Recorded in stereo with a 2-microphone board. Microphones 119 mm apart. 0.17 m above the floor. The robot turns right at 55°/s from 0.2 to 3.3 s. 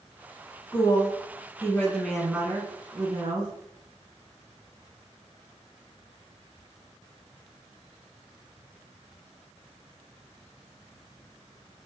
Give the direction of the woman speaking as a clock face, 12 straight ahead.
9 o'clock.